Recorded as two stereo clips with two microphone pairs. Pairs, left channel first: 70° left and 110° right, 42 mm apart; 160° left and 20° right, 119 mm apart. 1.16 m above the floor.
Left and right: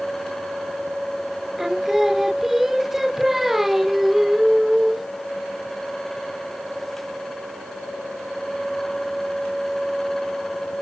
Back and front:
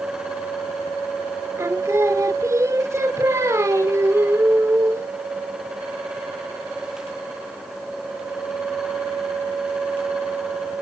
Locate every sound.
1.6 s singing: 35° right, 0.8 m